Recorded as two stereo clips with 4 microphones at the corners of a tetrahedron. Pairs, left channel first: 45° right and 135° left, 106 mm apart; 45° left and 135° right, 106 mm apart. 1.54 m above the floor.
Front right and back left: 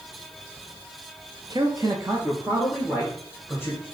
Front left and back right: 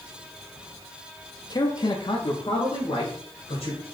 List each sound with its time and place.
1.5 s a man speaking: 95° left, 0.5 m; by 3.9 s 55° left, 1.7 m